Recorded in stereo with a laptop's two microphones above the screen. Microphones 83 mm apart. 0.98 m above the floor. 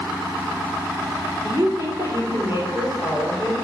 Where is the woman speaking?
40° right (ahead or behind), 3 m; by 3.5 s 20° right (ahead or behind), 3 m.